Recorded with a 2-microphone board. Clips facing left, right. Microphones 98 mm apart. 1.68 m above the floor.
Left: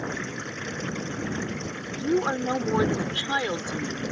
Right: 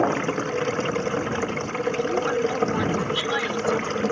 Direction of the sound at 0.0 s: 75° right (ahead or behind).